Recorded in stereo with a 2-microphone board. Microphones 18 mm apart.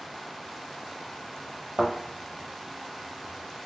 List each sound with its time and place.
1.8 s a thud: 70° right (ahead or behind), 1.2 m